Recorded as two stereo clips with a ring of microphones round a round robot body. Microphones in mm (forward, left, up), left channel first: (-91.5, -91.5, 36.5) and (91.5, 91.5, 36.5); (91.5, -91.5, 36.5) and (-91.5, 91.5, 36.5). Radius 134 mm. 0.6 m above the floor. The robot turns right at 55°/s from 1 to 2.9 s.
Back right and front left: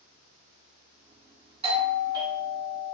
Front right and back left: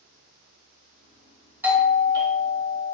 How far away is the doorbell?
About 1.0 m.